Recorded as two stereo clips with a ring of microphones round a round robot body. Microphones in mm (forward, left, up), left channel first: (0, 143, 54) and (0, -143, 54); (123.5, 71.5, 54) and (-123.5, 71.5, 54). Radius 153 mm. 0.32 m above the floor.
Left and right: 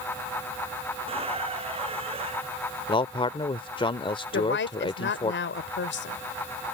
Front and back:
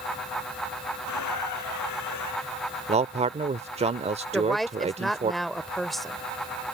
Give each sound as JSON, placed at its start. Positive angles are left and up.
{"t": 1.1, "sound": "a squeak", "azimuth_deg": -20}
{"t": 2.9, "sound": "a man speaking", "azimuth_deg": 145}
{"t": 4.3, "sound": "a woman speaking", "azimuth_deg": 90}